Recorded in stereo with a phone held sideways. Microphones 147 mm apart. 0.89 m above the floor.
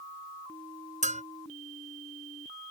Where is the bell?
55° right (ahead or behind).